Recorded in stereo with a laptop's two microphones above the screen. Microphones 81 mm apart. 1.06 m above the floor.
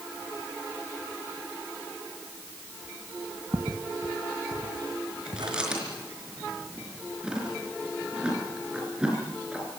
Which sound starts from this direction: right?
Footsteps, at 3.5 s.